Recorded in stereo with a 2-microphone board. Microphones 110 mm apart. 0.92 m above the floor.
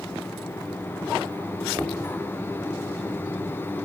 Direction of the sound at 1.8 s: 10° right (ahead or behind).